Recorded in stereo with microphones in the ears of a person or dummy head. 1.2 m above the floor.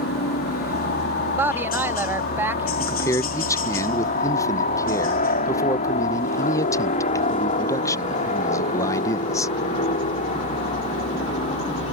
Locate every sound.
0.0 s a helicopter: 45° left (ahead or behind); by 11.9 s 35° left (ahead or behind)
1.4 s a woman speaking: 15° right (ahead or behind)
2.8 s a man speaking: 20° left (ahead or behind)